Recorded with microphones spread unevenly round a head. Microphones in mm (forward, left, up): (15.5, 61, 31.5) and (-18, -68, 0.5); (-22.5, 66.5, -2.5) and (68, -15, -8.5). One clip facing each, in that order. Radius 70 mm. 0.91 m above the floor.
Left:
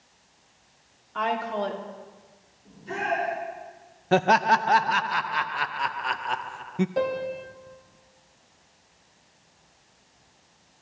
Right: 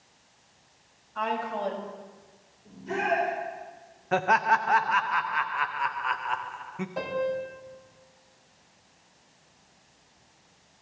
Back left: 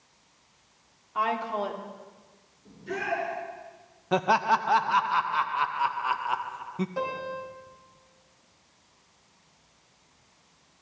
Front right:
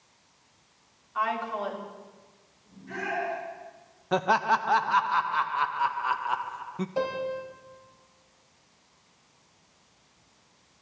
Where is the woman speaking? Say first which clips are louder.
Left 3 dB, back left 1 dB; 85° left, 2.5 m.